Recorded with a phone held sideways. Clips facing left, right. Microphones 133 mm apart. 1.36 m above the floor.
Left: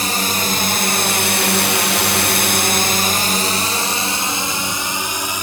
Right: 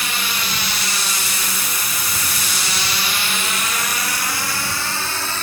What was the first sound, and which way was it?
A drone, 40° left (ahead or behind).